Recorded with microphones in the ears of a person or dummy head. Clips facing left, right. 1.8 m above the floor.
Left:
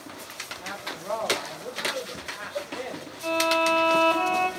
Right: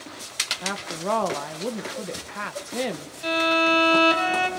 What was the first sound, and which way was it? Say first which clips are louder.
A woman speaking: right 7 dB; 80° right.